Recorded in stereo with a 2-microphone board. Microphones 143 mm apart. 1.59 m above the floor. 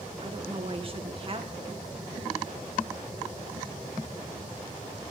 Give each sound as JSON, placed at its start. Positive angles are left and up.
{"t": 0.2, "sound": "a woman speaking", "side_deg": -40, "distance_m": 1.7}